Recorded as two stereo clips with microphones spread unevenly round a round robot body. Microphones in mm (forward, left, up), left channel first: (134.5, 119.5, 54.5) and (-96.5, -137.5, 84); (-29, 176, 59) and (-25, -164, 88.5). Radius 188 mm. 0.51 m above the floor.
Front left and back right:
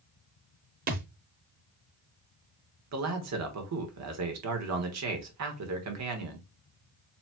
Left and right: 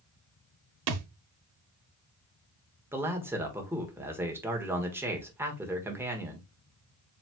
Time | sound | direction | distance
0.9 | a thud | 65° right | 0.8 m
2.9 | a man speaking | 175° right | 1.4 m